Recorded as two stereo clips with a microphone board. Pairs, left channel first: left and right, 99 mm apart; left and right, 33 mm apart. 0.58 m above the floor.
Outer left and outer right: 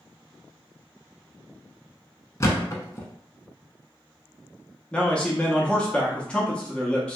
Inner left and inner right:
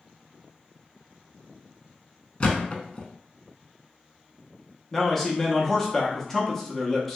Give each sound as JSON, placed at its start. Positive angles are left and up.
{"t": 2.4, "sound": "a thud", "side_deg": 30, "distance_m": 0.6}
{"t": 4.9, "sound": "a man speaking", "side_deg": 10, "distance_m": 0.7}